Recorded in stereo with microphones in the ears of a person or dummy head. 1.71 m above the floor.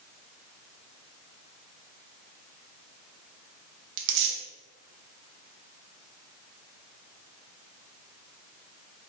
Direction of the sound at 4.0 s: 60° right (ahead or behind).